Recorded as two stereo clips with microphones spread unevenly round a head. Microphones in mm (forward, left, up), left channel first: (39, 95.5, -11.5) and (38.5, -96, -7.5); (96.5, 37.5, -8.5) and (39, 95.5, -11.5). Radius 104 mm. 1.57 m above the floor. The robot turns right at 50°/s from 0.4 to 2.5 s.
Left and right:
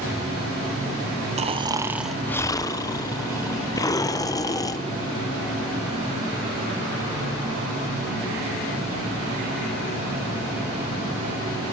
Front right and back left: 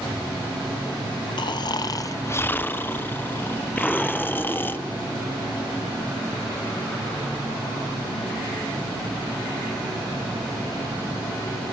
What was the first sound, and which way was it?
Snoring, 40° right.